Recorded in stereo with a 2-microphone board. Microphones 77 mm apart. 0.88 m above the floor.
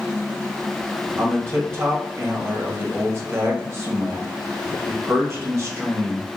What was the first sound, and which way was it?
A man speaking, 35° right (ahead or behind).